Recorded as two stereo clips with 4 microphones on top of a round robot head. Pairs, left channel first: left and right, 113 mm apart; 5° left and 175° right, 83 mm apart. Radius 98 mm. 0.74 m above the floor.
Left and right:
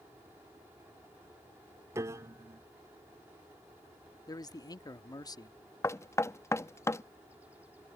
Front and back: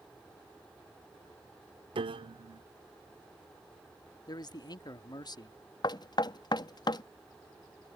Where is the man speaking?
35° left.